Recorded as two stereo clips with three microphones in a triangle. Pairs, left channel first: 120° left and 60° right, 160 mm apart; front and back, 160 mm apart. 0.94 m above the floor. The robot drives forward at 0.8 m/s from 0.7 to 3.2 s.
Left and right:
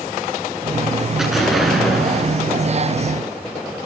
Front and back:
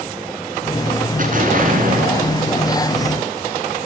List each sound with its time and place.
1.2 s an explosion: 145° right, 10 m; by 2.9 s 150° right, 11 m